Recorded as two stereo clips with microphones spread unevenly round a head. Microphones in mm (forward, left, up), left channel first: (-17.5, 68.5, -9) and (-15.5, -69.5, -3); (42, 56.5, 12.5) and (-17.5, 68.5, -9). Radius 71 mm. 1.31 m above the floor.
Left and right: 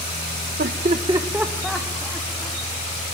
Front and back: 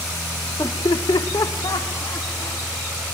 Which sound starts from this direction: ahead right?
Laughter, at 0.6 s.